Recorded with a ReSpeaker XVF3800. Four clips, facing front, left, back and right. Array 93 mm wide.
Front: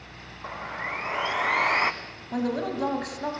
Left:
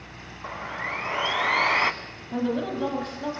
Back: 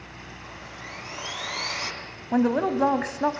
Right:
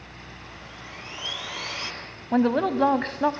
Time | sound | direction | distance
0.4 | sawing | 55° left | 1.0 m
2.3 | a woman speaking | 120° right | 1.6 m